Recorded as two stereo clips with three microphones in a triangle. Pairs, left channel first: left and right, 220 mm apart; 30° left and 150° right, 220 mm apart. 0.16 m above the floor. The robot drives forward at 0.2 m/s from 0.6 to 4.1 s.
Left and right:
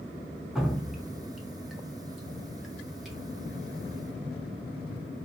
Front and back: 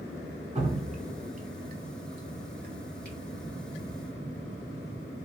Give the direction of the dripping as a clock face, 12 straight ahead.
6 o'clock.